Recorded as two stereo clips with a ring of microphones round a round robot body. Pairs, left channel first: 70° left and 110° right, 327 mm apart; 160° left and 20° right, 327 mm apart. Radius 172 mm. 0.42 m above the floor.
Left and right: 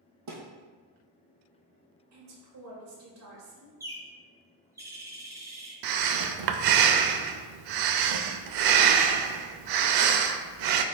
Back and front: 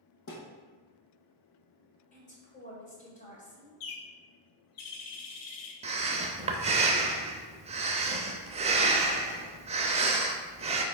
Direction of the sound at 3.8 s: 165° left.